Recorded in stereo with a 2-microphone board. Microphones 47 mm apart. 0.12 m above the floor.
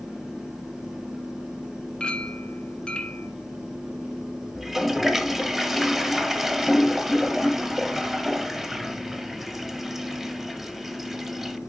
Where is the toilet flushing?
Centre (ahead or behind), 0.8 m.